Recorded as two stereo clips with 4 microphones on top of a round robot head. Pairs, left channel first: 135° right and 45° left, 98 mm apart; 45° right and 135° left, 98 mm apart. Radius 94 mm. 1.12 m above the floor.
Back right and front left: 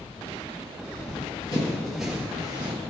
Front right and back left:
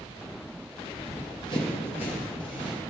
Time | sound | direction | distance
0.9 | running footsteps | 120° right | 1.8 m